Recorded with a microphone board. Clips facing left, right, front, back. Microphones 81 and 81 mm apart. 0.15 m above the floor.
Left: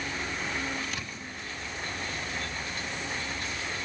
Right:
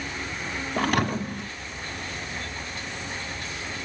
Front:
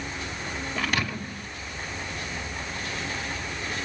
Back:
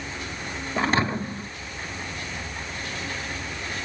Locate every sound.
0.8 s a thud: 120° right